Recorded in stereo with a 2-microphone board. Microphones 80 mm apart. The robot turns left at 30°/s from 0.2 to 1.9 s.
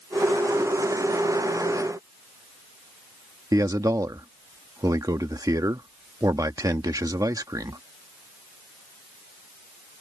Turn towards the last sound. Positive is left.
turn(degrees=-50)  # may be behind; listen again after turning